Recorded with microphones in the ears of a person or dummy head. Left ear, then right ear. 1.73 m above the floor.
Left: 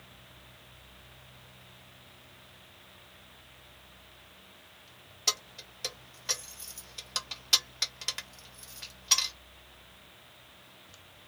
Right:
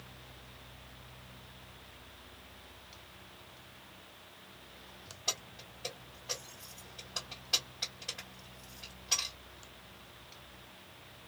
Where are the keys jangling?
60° left (ahead or behind), 1.3 m.